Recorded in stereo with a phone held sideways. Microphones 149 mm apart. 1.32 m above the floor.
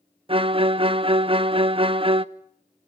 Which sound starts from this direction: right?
A violin, at 0.3 s.